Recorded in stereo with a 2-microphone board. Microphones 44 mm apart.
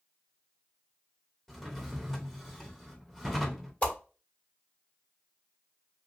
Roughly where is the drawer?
Centre.